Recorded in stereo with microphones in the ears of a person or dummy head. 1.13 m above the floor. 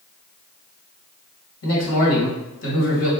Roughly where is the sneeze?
I don't hear a sneeze.